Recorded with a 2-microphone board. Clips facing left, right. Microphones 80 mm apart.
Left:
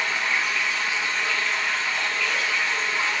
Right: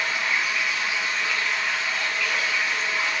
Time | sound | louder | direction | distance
0.0 | running water | even | 10° right (ahead or behind) | 2.5 m